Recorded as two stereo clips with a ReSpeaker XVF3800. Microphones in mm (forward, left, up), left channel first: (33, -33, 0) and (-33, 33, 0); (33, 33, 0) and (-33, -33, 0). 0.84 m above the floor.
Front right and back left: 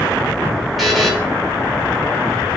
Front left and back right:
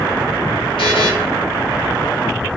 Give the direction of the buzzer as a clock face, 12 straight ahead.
10 o'clock.